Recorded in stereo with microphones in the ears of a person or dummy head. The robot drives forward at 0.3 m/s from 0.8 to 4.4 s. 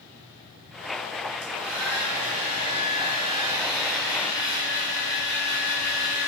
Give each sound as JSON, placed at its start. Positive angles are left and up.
{"t": 1.4, "sound": "a hair dryer", "side_deg": -80, "distance_m": 3.5}